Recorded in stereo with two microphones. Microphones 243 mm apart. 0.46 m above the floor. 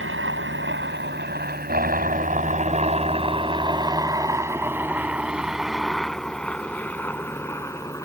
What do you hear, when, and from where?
0.0 s a helicopter: 55° right (ahead or behind); by 8.1 s 10° left (ahead or behind)